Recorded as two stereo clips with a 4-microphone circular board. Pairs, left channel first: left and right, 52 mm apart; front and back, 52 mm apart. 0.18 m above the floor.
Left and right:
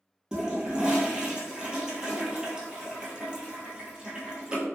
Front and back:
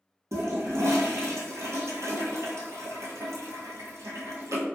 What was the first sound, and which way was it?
A toilet flushing, 165° right.